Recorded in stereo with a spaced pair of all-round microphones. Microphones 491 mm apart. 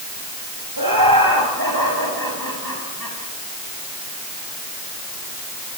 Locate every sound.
0.8 s laughter: 45° right (ahead or behind), 7.5 m